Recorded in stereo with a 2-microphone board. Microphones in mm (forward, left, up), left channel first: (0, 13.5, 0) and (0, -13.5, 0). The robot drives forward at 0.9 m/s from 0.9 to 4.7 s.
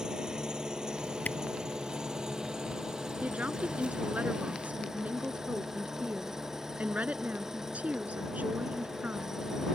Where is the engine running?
30° right (ahead or behind); by 9.8 s 20° right (ahead or behind).